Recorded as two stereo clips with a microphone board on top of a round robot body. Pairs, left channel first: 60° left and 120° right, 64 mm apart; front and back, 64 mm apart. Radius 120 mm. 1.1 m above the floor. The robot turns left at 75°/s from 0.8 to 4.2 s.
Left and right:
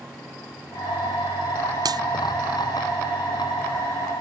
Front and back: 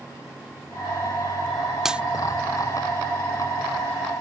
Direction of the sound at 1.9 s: 95° right.